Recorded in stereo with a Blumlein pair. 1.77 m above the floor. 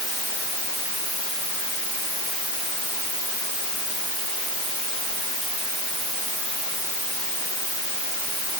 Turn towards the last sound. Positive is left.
No sound to turn to.